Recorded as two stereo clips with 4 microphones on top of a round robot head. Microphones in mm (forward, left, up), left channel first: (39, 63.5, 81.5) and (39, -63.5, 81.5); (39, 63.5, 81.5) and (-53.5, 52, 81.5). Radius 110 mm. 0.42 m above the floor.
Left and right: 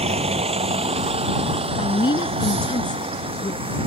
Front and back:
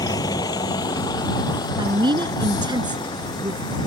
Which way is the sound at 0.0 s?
50° right.